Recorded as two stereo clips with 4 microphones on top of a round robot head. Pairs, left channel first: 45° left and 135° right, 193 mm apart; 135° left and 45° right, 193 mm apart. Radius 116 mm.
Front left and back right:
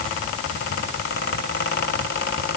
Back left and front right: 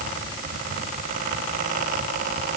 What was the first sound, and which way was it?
Only background noise.